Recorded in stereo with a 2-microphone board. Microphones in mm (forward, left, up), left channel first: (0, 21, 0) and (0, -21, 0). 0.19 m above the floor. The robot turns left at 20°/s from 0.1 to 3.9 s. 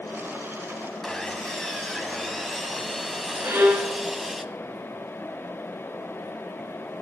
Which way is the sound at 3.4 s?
60° right (ahead or behind).